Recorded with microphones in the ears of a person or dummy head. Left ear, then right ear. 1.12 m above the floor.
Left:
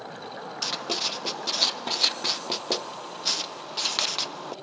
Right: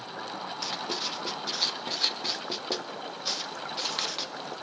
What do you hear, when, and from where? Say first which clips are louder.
0.6 s writing: left 5 dB; 25° left (ahead or behind), 0.5 m